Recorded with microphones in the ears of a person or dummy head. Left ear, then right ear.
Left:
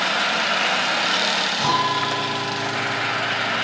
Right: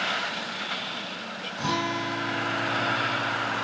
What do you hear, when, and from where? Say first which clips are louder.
1.6 s a guitar: left 8 dB; 35° left (ahead or behind), 3.5 m